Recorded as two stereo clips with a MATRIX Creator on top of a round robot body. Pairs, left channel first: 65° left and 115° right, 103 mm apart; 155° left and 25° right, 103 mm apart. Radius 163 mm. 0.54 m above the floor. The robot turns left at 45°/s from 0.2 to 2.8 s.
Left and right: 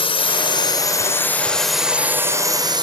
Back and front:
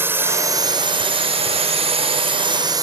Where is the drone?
45° left; by 2.8 s 70° right.